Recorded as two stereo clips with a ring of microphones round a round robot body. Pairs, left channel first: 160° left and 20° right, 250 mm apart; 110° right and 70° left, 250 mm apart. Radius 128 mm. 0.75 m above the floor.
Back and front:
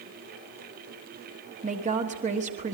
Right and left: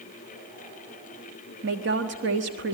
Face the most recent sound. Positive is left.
turn(degrees=35)